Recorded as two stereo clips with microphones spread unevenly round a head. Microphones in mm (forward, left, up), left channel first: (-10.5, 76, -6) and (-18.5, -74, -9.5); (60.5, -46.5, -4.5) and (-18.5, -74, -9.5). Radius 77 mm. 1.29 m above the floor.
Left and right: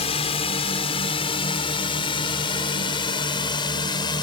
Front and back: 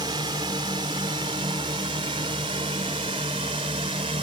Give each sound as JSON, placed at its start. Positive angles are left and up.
{"t": 0.0, "sound": "a drone", "azimuth_deg": 140}